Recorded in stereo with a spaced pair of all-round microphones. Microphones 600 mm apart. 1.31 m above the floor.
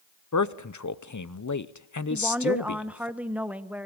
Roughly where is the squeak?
No squeak in this recording.